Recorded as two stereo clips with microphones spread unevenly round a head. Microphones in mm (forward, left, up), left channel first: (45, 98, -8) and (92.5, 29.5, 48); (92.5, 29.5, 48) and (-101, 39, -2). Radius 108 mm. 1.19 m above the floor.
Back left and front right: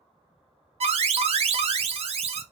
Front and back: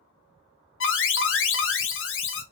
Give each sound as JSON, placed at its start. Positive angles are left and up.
{"t": 0.8, "sound": "an alarm", "azimuth_deg": -35, "distance_m": 0.8}